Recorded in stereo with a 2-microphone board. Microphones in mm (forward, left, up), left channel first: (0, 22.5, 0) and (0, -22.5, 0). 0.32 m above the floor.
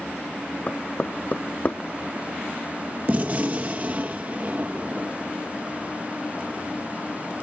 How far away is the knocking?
About 0.8 m.